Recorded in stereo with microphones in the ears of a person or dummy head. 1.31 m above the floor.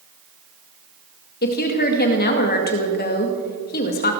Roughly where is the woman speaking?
Left.